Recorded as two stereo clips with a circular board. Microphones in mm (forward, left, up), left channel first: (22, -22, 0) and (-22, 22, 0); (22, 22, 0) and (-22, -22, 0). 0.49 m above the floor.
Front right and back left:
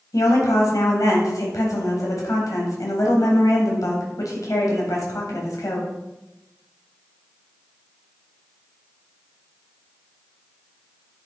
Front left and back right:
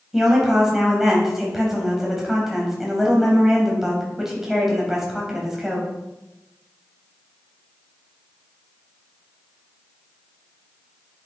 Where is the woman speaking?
50° right, 3.5 m.